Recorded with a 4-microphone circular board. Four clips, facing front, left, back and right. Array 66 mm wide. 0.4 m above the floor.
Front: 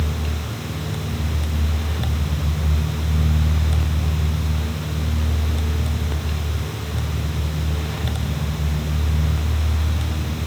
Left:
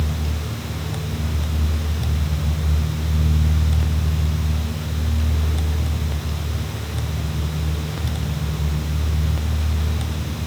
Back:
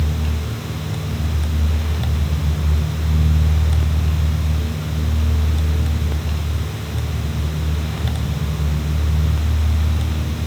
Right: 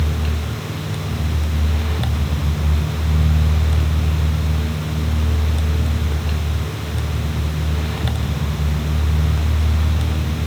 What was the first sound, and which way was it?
Only background noise.